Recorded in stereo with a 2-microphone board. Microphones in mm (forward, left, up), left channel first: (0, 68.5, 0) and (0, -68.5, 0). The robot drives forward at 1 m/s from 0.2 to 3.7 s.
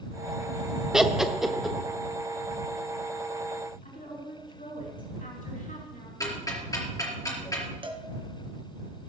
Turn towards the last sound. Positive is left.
turn(degrees=-40)  # may be behind; listen again after turning